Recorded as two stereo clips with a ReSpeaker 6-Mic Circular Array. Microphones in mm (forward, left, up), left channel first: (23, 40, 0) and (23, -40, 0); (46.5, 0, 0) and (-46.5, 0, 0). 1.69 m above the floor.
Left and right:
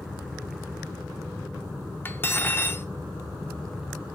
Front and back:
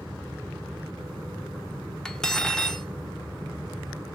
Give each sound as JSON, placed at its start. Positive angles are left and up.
{"t": 2.0, "sound": "cutlery clinking", "azimuth_deg": 75, "distance_m": 0.8}